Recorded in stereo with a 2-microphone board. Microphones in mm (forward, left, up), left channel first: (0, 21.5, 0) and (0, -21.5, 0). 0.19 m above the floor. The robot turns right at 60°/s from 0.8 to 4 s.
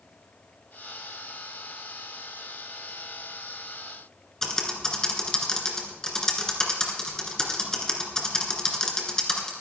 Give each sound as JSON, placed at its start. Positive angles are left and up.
{"t": 4.4, "sound": "typing on a keyboard", "side_deg": 15, "distance_m": 2.5}